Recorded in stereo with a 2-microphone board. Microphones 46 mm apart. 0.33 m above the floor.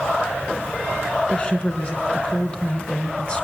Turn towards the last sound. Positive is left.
turn(degrees=25)  # may be behind; listen again after turning